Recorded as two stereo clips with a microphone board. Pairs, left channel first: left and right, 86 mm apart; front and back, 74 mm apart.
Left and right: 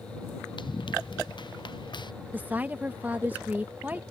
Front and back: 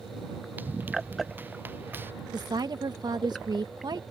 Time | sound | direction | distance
0.6 | running footsteps | 115° left | ?
2.3 | a woman speaking | 160° right | ?